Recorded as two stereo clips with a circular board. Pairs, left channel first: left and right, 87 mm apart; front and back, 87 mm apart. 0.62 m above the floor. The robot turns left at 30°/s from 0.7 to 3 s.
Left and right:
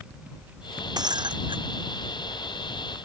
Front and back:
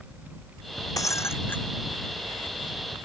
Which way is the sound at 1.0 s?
50° right.